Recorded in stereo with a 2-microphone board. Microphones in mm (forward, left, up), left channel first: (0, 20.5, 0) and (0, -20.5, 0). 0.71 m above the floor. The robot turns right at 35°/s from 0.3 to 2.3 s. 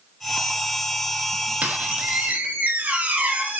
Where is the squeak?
40° right (ahead or behind), 0.5 m.